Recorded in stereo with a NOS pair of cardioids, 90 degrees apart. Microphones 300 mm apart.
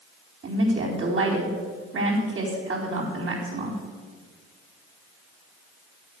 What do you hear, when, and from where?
0.4 s a woman speaking: 40° right, 4 m